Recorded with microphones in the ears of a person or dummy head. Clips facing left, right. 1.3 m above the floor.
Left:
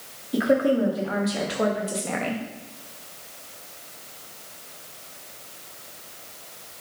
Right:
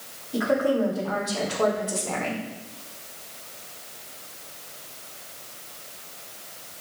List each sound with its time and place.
0.3 s a woman speaking: 30° left (ahead or behind), 3 m; by 2.4 s 20° left (ahead or behind), 1.7 m